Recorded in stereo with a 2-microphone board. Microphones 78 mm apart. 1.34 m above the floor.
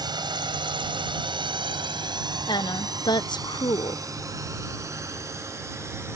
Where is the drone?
65° right (ahead or behind); by 6.2 s 35° right (ahead or behind).